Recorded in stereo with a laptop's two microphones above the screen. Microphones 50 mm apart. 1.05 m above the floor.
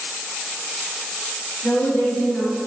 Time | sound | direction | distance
1.6 | a woman speaking | 50° left (ahead or behind) | 2.0 m